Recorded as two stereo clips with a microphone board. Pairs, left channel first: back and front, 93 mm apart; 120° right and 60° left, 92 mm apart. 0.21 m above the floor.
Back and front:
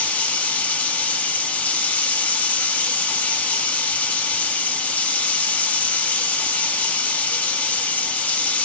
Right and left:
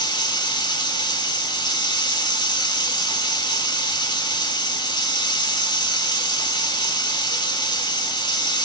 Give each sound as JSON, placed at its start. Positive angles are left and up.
{"t": 0.0, "sound": "running water", "azimuth_deg": -110, "distance_m": 0.7}